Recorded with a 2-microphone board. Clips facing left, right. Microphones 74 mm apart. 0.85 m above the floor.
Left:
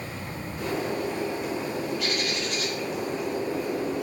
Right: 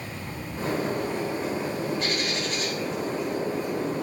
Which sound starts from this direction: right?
A bird, at 0.6 s.